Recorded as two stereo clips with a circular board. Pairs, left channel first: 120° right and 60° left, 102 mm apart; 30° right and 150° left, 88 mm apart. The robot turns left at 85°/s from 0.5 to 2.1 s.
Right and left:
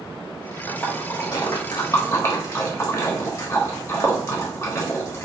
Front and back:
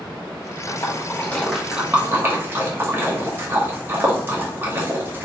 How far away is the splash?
About 1.1 m.